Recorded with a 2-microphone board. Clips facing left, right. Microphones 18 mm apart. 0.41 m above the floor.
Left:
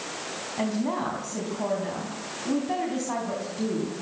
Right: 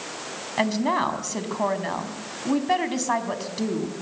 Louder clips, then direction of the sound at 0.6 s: Right 5 dB; 60° right (ahead or behind).